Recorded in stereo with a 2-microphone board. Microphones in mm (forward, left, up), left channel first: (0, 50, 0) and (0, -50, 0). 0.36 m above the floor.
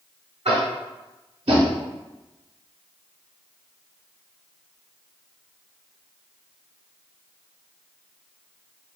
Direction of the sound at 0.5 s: 85° right.